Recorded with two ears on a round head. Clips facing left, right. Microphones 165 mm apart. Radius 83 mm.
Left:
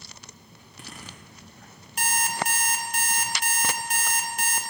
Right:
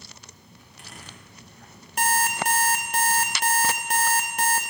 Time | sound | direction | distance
0.6 | a zipper | 75° left (ahead or behind) | 3 m
2.0 | an alarm clock | 50° right (ahead or behind) | 1.6 m